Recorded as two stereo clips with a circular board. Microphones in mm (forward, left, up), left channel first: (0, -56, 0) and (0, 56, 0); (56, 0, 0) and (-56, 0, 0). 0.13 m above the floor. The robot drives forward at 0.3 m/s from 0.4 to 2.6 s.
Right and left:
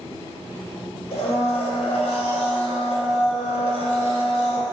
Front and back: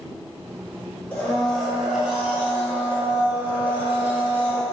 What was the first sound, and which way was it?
A blender, 75° right.